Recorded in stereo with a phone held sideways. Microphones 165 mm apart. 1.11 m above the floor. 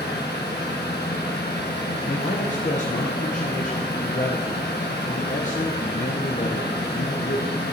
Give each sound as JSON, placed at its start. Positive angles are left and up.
{"t": 0.0, "sound": "a fan", "side_deg": 80, "distance_m": 1.3}
{"t": 2.0, "sound": "a man speaking", "side_deg": 45, "distance_m": 0.6}